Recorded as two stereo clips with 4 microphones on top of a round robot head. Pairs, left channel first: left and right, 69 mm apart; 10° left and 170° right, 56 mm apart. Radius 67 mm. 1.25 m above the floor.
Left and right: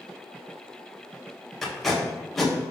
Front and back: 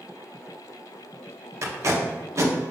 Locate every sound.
1.6 s tape being pulled: 175° left, 1.0 m